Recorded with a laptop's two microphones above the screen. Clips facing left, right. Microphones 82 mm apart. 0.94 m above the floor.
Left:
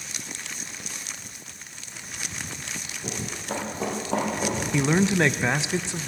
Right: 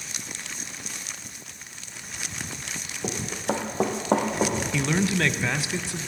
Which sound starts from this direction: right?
Running footsteps, at 3.0 s.